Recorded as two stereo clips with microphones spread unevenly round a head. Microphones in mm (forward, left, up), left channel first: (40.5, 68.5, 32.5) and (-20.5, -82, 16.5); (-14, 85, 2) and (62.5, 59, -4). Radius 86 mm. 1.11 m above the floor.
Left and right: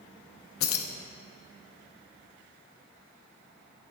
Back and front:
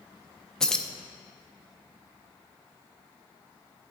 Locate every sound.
0.6 s keys jangling: 80° left, 0.9 m